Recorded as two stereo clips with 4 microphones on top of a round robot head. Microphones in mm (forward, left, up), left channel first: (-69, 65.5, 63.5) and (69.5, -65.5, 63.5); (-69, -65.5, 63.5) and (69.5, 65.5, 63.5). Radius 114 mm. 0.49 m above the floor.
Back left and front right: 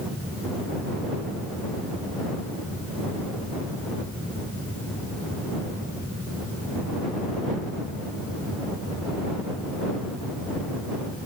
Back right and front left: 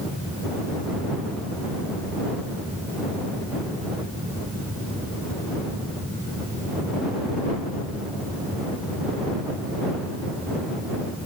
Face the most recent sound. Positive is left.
No sound to turn to.